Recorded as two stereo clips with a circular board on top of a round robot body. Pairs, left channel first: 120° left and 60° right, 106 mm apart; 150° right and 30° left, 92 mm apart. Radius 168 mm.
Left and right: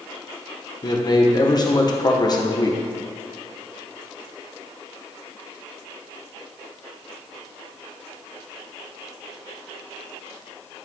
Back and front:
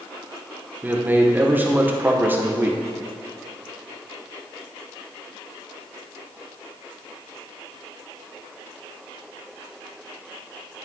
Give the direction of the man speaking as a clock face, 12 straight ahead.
9 o'clock.